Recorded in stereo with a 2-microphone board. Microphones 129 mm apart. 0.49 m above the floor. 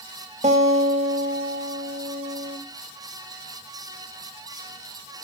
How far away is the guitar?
About 2.5 m.